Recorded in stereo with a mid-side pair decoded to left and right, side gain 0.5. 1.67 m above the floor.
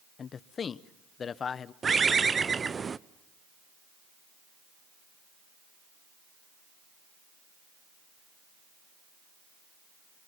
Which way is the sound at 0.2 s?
45° left.